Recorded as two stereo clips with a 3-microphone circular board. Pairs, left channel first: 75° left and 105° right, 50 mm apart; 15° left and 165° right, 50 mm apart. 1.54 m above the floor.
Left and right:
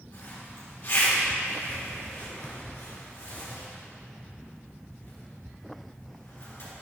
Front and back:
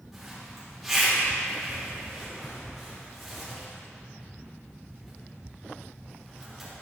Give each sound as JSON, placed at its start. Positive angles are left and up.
{"t": 0.1, "sound": "a zipper", "azimuth_deg": 110, "distance_m": 4.0}